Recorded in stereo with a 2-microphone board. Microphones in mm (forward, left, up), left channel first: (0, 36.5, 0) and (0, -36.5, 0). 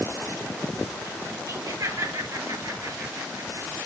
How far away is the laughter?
About 9 m.